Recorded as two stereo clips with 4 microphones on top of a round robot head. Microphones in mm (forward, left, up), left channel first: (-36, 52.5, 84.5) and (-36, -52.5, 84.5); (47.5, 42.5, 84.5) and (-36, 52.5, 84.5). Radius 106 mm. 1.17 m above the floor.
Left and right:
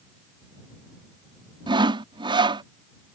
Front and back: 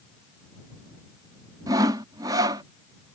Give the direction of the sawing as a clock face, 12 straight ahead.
4 o'clock.